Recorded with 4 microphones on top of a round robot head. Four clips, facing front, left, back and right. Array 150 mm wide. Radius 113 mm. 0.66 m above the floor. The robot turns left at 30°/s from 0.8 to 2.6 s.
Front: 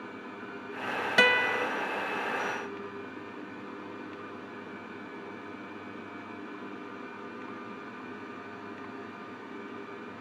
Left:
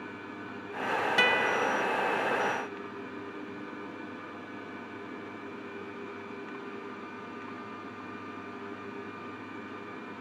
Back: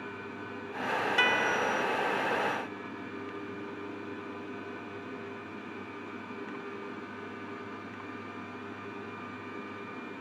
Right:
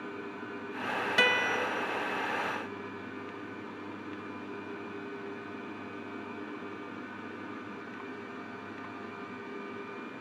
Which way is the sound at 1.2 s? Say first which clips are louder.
Even, front 5 dB; 5° right.